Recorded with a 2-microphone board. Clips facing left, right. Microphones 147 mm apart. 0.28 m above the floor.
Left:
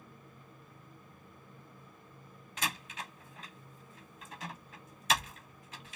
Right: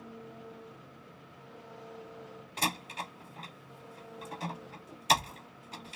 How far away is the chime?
No chime in this recording.